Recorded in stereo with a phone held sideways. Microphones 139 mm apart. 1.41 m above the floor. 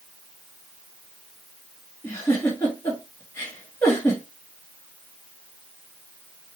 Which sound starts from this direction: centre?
A giggle, at 2.0 s.